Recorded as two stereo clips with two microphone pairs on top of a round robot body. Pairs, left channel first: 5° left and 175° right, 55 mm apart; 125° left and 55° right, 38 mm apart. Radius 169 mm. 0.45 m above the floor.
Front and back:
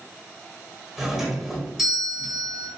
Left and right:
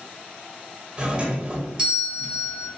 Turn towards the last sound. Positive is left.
turn(degrees=-105)